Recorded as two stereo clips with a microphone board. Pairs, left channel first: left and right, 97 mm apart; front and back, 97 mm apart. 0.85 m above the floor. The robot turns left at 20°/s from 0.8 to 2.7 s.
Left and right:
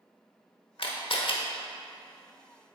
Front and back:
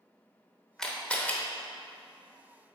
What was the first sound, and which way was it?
A camera shutter, 85° left.